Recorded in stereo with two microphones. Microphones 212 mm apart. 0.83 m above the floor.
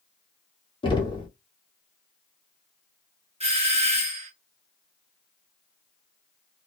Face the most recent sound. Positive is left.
turn(degrees=-30)  # may be behind; listen again after turning